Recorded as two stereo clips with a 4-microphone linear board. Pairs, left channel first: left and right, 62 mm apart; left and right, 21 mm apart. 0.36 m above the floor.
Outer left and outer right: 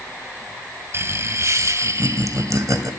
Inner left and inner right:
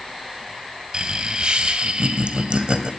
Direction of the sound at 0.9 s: 40° right (ahead or behind).